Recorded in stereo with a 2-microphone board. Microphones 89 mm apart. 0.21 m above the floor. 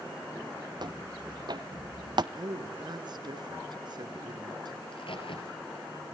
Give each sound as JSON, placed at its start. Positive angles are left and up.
{"t": 0.8, "sound": "footsteps", "side_deg": -55, "distance_m": 2.0}
{"t": 2.3, "sound": "a woman speaking", "side_deg": -55, "distance_m": 2.5}
{"t": 4.8, "sound": "a crack", "side_deg": 75, "distance_m": 4.0}